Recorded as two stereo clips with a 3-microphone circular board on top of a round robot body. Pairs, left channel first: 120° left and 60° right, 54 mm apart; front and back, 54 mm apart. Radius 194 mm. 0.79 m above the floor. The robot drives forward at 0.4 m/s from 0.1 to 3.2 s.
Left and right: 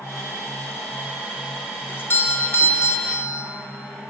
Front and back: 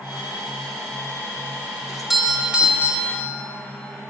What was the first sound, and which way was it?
A doorbell, 85° left.